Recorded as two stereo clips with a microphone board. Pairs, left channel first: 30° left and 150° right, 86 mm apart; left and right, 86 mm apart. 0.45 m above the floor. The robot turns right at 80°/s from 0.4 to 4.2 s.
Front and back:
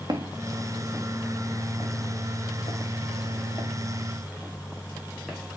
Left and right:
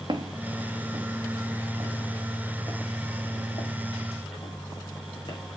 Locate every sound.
0.1 s footsteps: 115° right, 1.9 m; by 5.4 s 115° left, 4.5 m